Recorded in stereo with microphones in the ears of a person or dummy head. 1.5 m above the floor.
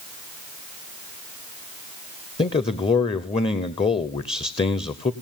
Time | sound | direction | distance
2.4 | a man speaking | 25° left (ahead or behind) | 0.8 m